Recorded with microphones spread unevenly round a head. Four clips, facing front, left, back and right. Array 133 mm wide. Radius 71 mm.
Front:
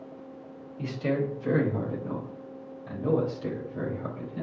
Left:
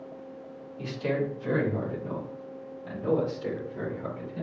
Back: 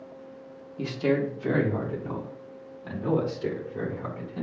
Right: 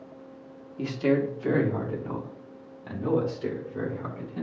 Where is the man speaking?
140° right, 2.5 m; by 4.4 s 150° right, 6 m.